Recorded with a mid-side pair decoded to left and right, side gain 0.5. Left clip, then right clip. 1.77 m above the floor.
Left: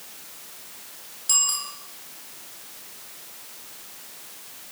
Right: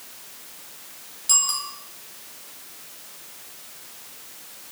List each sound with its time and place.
1.3 s a bicycle bell: 5° right, 8.5 m